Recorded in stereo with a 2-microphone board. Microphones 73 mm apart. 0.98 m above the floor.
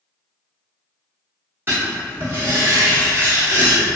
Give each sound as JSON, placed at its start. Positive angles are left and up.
{"t": 1.7, "sound": "writing", "side_deg": -30, "distance_m": 1.2}